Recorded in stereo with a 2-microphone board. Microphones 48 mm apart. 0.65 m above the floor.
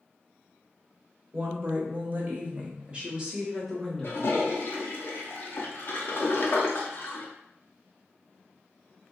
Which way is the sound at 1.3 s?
50° right (ahead or behind).